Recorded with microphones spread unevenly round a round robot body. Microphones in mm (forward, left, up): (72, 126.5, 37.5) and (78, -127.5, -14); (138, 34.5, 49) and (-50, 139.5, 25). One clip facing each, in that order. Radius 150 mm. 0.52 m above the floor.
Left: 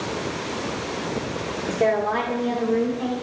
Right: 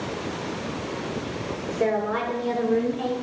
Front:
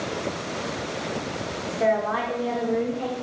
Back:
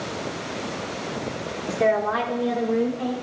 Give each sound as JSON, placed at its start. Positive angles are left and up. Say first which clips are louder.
{"t": 1.7, "sound": "a woman speaking", "louder": "left 2 dB, back 2 dB", "azimuth_deg": 160, "distance_m": 1.1}